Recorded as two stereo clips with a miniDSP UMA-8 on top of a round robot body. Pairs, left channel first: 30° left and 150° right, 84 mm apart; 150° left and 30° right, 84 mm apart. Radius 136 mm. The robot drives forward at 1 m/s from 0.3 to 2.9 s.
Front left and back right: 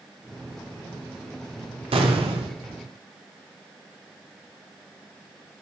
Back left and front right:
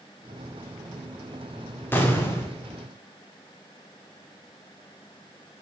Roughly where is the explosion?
Behind right.